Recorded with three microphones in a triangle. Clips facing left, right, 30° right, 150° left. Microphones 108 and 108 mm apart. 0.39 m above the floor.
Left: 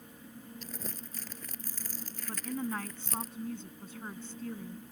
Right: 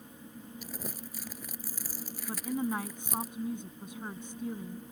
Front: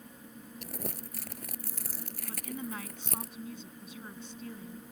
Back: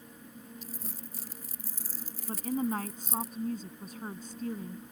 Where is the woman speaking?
165° right.